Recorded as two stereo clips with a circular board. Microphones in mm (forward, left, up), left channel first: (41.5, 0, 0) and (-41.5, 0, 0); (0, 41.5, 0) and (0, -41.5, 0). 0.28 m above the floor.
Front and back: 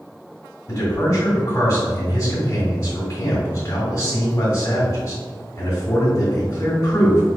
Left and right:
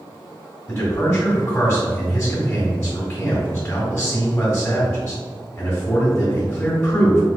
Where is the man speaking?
40° left, 1.9 m.